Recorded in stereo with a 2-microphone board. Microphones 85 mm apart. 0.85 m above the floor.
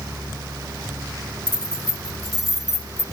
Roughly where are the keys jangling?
Left.